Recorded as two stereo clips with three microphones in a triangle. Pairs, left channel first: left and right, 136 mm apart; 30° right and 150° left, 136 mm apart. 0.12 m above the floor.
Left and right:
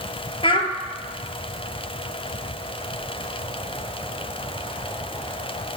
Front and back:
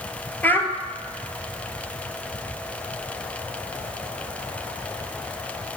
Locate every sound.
0.4 s a child speaking: 45° left, 1.8 m